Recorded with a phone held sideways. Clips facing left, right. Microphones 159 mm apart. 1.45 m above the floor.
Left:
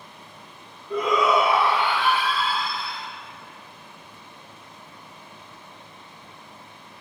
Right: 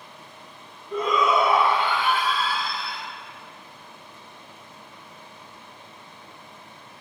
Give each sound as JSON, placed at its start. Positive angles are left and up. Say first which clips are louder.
{"t": 0.9, "sound": "a shout", "louder": "left 1 dB", "side_deg": 80, "distance_m": 1.9}